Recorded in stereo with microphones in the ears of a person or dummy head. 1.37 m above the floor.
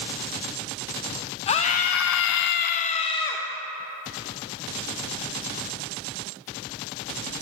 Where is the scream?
30° left (ahead or behind), 1.0 m; by 3.5 s 25° left (ahead or behind), 1.2 m.